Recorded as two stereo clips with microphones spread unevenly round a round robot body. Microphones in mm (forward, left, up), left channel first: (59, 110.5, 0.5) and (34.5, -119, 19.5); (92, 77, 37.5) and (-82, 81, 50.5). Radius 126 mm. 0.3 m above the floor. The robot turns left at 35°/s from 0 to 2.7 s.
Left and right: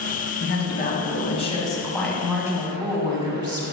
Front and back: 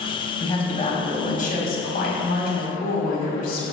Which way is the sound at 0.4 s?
60° left.